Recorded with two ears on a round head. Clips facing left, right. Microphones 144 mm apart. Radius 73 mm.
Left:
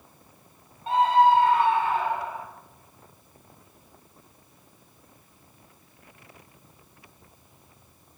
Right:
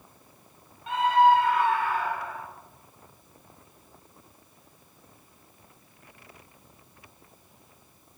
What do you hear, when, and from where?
0.9 s a scream: 30° left (ahead or behind), 6.5 m; by 2.5 s 20° left (ahead or behind), 7 m